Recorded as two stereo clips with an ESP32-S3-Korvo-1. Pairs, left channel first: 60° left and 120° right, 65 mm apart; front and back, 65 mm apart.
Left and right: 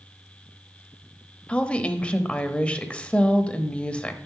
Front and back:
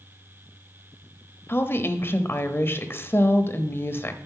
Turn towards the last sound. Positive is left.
turn(degrees=0)